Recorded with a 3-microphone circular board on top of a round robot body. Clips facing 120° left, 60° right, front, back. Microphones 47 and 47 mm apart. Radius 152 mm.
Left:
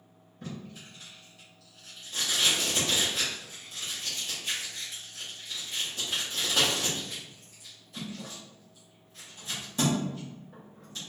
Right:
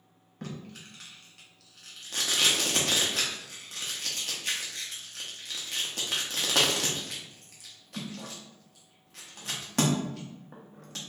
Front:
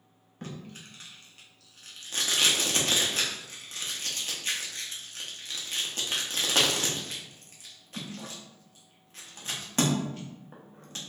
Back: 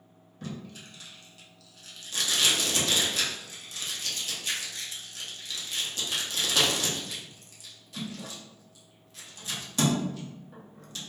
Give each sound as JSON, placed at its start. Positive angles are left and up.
{"t": 0.4, "sound": "tape being pulled", "azimuth_deg": -50, "distance_m": 1.0}